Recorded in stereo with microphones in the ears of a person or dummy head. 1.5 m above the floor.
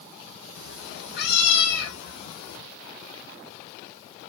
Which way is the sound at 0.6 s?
65° left (ahead or behind).